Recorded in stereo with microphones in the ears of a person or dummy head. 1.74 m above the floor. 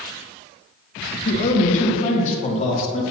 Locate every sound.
1.2 s a man speaking: 40° left (ahead or behind), 1.2 m; by 3.0 s 35° left (ahead or behind), 2.5 m